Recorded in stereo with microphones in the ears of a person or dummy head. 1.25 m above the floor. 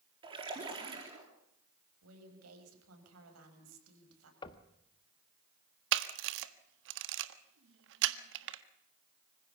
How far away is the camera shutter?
About 1.4 m.